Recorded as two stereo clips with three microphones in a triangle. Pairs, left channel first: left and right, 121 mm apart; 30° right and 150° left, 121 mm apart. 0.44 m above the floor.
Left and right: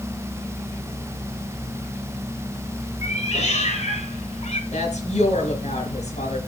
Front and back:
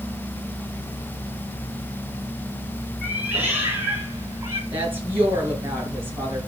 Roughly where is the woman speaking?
Left.